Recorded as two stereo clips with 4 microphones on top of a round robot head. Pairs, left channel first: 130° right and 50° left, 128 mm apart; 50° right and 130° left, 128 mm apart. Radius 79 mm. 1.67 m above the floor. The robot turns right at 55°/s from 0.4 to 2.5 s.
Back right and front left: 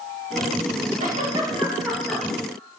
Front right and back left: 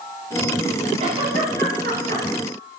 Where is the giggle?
85° left, 3 m; by 2.2 s 155° left, 3 m.